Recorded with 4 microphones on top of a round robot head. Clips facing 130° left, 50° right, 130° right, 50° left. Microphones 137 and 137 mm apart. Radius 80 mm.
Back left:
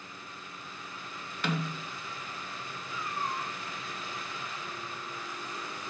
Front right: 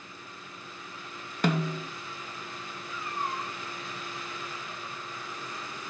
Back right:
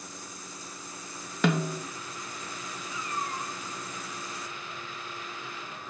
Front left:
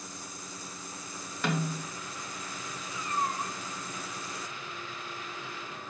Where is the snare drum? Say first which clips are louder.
Front right 6 dB, back right 5 dB; 100° right, 1.0 m.